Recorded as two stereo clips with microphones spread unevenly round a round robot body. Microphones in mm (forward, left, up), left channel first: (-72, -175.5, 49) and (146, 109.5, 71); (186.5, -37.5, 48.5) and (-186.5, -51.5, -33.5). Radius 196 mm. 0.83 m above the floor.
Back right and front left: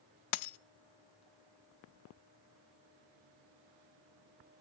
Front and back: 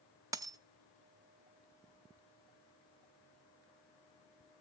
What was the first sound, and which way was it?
A dropped coin, 95° right.